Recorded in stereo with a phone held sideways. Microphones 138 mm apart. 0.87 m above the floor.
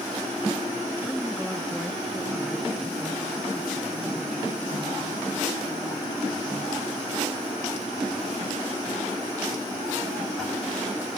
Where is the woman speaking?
Centre (ahead or behind).